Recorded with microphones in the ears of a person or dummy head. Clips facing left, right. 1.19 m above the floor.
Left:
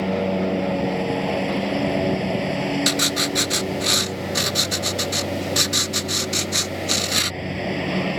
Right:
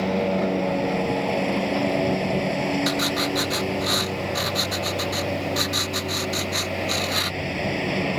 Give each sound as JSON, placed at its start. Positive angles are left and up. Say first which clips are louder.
{"t": 0.0, "sound": "a lawn mower", "louder": "left 1 dB", "side_deg": 5}
{"t": 2.9, "sound": "writing", "louder": "even", "side_deg": 35}